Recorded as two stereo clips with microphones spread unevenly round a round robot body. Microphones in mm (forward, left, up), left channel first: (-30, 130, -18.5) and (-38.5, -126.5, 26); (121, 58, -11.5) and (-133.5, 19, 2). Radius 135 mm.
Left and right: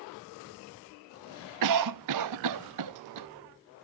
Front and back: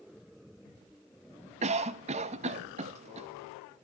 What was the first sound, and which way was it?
A cough, 105° right.